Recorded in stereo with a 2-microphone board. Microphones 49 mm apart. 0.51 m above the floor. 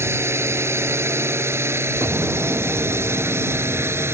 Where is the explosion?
40° right (ahead or behind).